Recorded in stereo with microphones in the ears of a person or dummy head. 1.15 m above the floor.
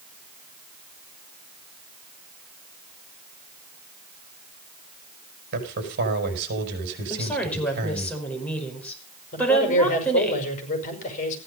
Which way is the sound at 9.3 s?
45° left (ahead or behind).